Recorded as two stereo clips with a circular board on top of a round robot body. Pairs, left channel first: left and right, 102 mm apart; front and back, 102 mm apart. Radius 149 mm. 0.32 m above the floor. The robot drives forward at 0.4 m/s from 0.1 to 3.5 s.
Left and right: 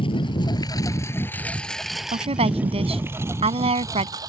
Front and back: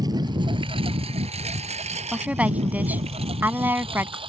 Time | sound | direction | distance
0.0 | a lawn mower | 125° left | ?
2.1 | a woman speaking | 100° right | ?